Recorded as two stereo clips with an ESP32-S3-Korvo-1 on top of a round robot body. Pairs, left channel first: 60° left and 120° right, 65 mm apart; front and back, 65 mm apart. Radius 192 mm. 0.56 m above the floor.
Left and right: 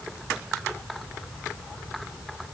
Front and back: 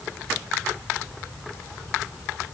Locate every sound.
Only background noise.